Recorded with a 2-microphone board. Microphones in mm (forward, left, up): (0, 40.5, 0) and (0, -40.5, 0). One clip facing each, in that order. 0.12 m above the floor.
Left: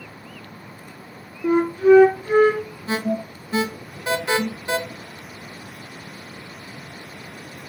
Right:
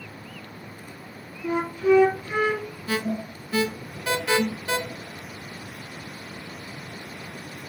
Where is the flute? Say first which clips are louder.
Left 7 dB; 40° left (ahead or behind), 0.8 m.